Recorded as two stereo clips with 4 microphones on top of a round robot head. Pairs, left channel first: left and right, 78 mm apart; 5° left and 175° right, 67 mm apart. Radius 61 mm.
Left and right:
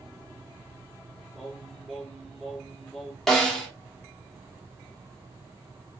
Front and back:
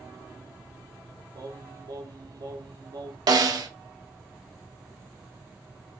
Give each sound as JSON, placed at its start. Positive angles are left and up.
{"t": 1.4, "sound": "singing", "azimuth_deg": 175, "distance_m": 0.6}
{"t": 3.3, "sound": "a snare drum", "azimuth_deg": 175, "distance_m": 0.6}